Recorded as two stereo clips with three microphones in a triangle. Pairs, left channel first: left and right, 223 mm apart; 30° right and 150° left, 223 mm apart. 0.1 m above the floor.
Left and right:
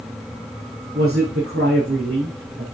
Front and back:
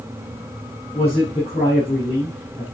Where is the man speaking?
95° right, 4.5 m.